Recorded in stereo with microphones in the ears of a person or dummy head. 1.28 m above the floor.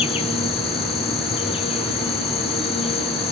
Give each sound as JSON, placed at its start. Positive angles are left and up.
{"t": 0.0, "sound": "an insect", "side_deg": 25, "distance_m": 1.2}